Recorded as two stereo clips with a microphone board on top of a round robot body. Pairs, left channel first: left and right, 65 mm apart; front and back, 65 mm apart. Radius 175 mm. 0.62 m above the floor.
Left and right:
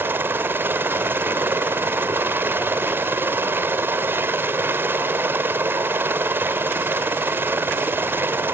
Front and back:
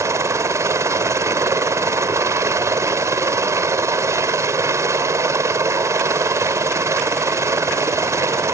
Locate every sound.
0.0 s a helicopter: 145° right